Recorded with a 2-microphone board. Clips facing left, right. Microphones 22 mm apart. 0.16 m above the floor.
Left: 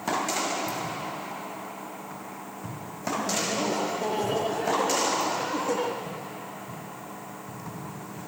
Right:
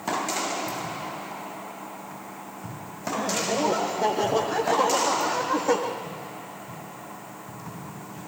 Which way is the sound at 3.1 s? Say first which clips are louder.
Right 2 dB; 40° right (ahead or behind).